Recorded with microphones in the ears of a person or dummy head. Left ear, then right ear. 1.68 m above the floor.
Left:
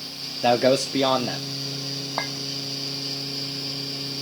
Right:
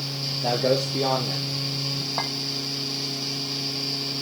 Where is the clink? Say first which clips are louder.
Left 1 dB; 20° left (ahead or behind), 1.6 m.